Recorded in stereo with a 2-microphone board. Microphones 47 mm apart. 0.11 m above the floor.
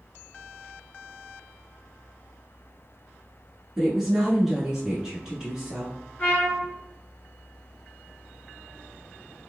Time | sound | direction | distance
3.8 | a woman speaking | 5° right (ahead or behind) | 1.2 m
6.2 | a trumpet | 25° left (ahead or behind) | 1.8 m